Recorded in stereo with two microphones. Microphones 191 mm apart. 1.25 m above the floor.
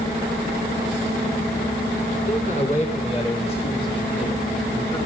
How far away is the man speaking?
About 4 m.